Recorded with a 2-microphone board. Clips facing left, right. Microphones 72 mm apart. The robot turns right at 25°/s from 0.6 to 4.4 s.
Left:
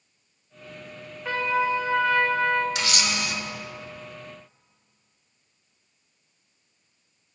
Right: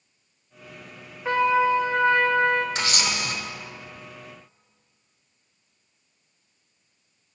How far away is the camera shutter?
About 0.8 m.